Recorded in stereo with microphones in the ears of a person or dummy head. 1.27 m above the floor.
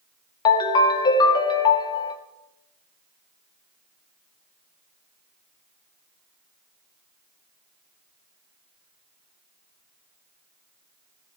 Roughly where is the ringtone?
Left.